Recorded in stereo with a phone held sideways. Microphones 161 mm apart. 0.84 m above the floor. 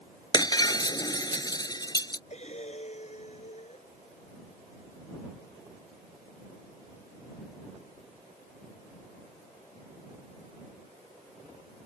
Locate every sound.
0.3 s breaking glass: 25° left (ahead or behind)
2.3 s breathing: 45° left (ahead or behind)